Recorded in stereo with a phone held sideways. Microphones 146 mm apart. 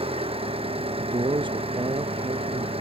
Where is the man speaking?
35° right (ahead or behind).